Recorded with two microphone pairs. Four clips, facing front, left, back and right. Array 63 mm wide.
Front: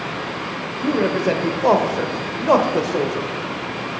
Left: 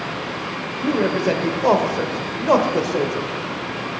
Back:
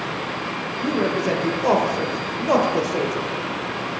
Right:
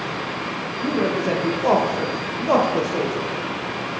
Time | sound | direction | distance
0.8 | a man speaking | 40° left | 1.0 m